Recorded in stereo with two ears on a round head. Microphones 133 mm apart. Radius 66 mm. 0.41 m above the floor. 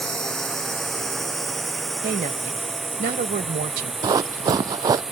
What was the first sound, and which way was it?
A drone, 5° left (ahead or behind).